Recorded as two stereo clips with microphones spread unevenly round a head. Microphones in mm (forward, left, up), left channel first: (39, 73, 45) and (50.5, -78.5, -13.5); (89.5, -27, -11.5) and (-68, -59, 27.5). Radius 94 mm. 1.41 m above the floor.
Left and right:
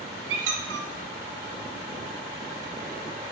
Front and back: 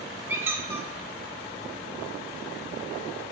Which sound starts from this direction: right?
A squeak, at 0.3 s.